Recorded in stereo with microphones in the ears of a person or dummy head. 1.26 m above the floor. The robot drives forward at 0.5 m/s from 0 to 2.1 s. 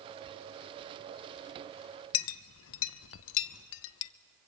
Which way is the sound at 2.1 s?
70° left (ahead or behind).